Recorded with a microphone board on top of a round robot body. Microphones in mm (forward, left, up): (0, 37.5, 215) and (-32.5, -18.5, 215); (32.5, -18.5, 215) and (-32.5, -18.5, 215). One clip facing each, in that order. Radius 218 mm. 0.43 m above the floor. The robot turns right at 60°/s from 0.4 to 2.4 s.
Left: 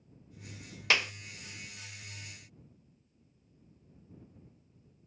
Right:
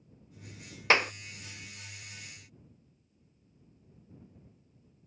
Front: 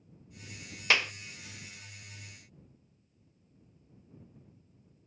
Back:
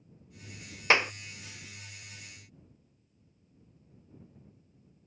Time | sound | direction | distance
0.9 | a clap | 140° right | ?